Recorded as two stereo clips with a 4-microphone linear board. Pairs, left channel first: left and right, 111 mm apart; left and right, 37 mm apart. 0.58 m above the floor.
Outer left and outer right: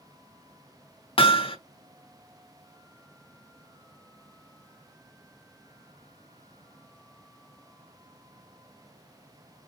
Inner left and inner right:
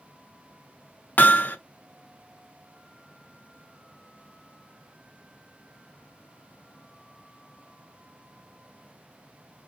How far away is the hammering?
About 0.5 m.